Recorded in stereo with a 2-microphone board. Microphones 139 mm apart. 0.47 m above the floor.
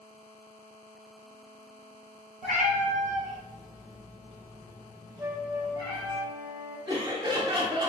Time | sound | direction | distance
2.4 | a cat meowing | 70° right (ahead or behind) | 1.1 m
5.2 | a flute | 20° right (ahead or behind) | 1.1 m
6.9 | laughter | 35° right (ahead or behind) | 0.9 m